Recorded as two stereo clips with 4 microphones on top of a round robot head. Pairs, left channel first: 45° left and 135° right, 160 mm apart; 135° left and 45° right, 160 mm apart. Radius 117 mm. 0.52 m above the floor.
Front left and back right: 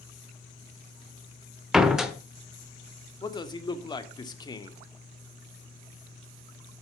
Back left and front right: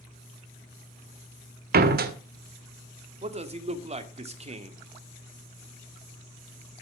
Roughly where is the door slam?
Ahead right.